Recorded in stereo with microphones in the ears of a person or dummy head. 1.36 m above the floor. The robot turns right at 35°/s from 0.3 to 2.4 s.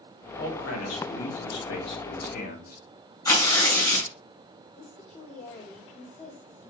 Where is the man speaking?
65° left, 2.5 m; by 2.8 s 135° left, 2.5 m.